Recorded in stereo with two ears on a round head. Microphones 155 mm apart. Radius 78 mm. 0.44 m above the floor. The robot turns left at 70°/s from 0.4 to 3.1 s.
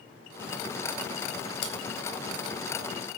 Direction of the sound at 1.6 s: 70° left (ahead or behind).